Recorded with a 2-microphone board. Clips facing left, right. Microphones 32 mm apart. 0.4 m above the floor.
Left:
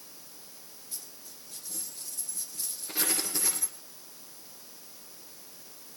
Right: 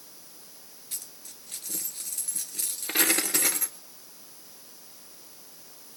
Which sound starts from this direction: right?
A dropped coin, at 0.9 s.